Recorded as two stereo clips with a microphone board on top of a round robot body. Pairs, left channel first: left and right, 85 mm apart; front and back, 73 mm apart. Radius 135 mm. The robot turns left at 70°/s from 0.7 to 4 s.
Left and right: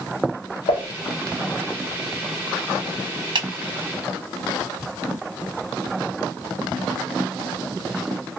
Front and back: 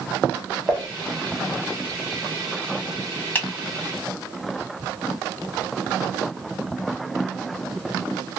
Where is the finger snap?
65° right, 2 m; by 3.5 s 75° right, 2 m.